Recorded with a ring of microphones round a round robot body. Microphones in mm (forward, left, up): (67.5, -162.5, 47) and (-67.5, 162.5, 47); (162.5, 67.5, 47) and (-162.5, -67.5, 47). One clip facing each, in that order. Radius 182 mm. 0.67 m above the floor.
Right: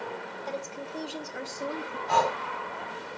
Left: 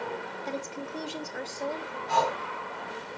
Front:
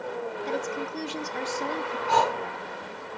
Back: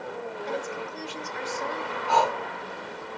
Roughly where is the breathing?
Ahead right.